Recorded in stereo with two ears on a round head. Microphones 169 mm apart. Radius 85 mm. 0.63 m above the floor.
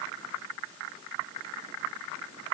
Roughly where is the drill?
No drill in this recording.